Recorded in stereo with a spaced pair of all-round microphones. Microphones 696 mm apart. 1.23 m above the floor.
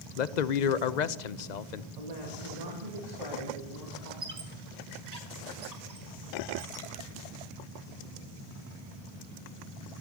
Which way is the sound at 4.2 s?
65° right (ahead or behind).